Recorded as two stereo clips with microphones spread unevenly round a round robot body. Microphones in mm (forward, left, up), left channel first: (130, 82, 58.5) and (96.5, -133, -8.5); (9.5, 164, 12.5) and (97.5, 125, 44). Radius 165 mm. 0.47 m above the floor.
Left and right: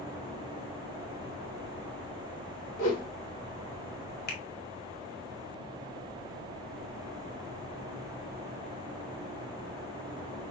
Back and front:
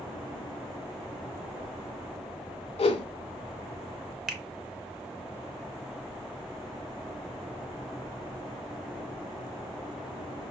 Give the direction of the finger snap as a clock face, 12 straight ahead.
9 o'clock.